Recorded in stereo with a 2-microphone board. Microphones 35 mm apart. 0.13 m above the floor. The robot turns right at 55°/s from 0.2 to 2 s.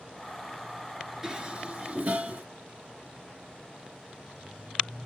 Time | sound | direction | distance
1.2 | dishes clattering | 20° right (ahead or behind) | 1.3 m